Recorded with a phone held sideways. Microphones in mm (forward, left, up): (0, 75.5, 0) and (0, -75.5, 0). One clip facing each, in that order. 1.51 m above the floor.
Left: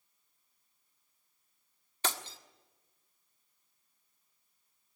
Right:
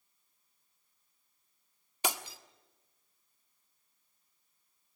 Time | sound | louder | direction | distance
2.0 | breaking glass | right 2 dB | 15° right (ahead or behind) | 1.4 m